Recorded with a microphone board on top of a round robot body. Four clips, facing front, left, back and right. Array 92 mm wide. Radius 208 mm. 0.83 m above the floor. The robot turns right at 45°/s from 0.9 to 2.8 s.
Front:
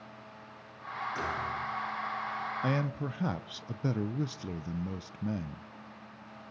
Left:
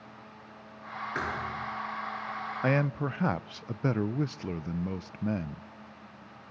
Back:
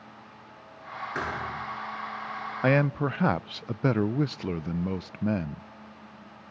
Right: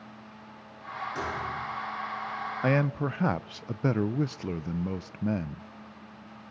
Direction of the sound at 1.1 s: 135° left.